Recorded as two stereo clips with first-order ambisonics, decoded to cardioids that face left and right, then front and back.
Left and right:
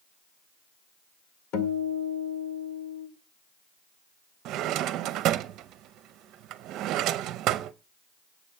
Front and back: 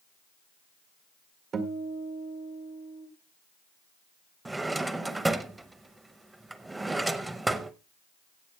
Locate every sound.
1.5 s a guitar: 120° left, 1.8 m
4.5 s a drawer: 100° right, 0.6 m